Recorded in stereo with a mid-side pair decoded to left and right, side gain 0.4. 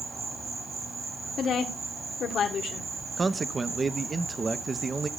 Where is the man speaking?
40° right, 0.9 m.